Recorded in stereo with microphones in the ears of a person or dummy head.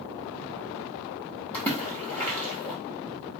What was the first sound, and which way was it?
A splash, 15° left (ahead or behind).